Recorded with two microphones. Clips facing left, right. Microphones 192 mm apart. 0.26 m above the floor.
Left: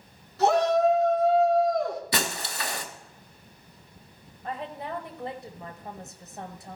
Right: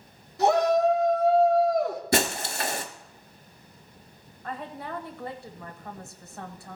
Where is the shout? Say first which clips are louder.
Even; 15° right (ahead or behind), 3.5 m; by 2.0 s 5° right (ahead or behind), 3.5 m.